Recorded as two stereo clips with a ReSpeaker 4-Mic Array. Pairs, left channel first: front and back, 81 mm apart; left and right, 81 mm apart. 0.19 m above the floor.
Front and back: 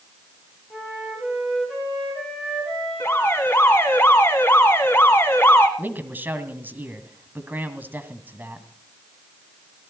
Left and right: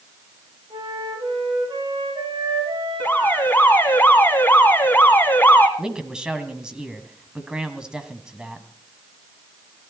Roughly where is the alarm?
Ahead left.